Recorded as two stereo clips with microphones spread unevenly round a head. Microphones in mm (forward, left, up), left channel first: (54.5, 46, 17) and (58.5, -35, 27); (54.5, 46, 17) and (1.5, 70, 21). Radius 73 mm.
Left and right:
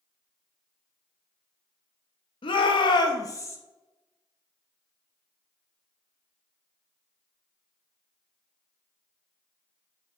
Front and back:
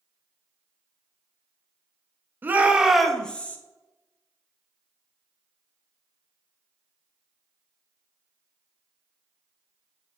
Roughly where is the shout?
Left.